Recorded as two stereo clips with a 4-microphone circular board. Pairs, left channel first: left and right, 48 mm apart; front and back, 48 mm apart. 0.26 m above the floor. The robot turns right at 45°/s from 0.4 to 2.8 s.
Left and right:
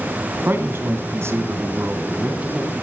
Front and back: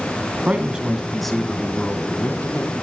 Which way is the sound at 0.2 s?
125° right.